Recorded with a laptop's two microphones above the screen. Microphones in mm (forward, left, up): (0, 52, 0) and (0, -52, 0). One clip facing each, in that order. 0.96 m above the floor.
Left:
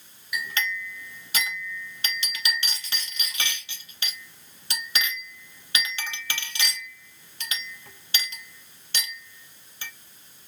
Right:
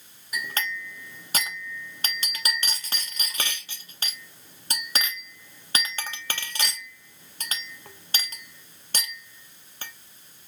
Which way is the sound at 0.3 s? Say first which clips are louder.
Left 1 dB; 45° right (ahead or behind).